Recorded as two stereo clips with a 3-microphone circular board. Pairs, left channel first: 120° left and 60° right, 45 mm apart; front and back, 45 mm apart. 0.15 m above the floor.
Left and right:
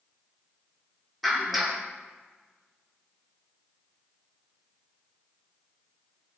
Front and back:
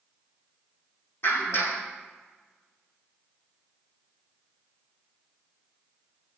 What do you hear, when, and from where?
1.2 s a clap: 30° left, 6.5 m